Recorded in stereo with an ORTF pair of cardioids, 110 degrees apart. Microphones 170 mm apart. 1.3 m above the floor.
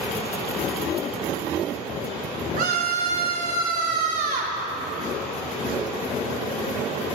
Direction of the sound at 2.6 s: 60° right.